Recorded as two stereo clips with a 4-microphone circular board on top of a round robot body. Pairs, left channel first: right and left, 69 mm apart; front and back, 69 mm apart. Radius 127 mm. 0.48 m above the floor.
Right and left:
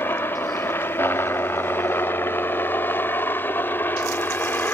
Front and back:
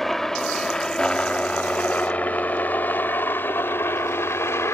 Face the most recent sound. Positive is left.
turn(degrees=-40)